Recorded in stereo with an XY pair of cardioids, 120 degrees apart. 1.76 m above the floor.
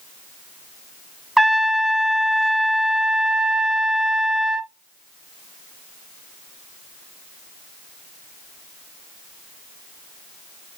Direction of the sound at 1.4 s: 5° right.